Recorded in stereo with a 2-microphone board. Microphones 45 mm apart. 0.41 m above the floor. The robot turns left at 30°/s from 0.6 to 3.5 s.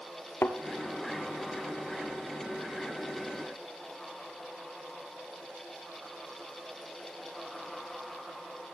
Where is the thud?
65° left (ahead or behind), 1.1 m.